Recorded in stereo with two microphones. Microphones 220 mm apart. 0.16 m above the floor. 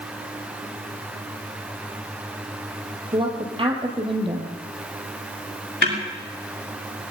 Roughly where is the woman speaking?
Right.